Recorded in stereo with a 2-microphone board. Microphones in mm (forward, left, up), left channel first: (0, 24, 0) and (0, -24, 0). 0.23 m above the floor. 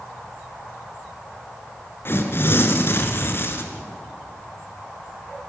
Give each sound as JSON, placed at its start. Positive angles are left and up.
{"t": 2.0, "sound": "tearing paper", "side_deg": 55, "distance_m": 2.5}